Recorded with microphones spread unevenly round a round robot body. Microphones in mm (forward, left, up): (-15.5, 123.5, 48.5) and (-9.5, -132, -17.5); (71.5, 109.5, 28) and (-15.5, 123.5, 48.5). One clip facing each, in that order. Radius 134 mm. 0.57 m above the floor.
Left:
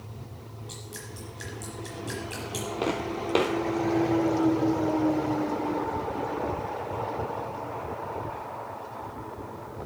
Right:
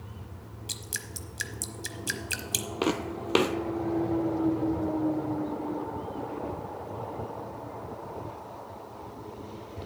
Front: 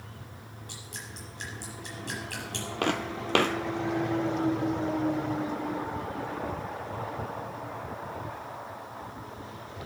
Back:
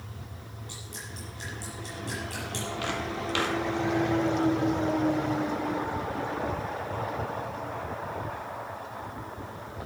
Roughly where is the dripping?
Right.